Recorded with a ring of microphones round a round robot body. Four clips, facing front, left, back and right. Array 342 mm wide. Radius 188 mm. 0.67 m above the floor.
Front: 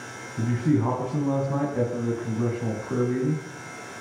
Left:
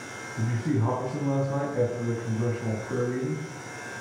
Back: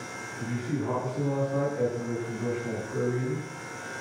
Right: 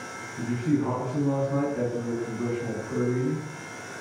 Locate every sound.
0.4 s a man speaking: 10° left, 7 m